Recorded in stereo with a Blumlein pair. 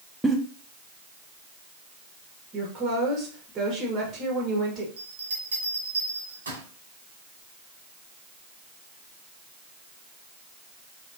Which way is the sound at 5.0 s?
70° right.